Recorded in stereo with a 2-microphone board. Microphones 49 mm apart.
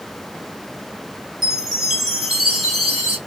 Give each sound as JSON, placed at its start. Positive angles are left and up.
{"t": 1.4, "sound": "a chime", "side_deg": -5, "distance_m": 1.7}